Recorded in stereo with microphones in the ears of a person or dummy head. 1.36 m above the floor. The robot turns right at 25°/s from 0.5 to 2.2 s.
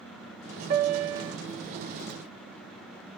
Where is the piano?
40° right (ahead or behind), 0.6 m; by 1.3 s 25° right (ahead or behind), 0.6 m.